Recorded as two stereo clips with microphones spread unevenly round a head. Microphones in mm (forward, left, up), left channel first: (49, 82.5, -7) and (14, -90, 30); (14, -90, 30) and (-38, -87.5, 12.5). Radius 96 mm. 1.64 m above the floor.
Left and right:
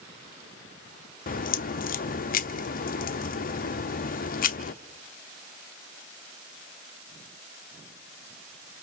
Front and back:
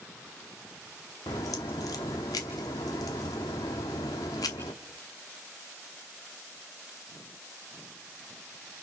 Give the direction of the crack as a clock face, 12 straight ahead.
11 o'clock.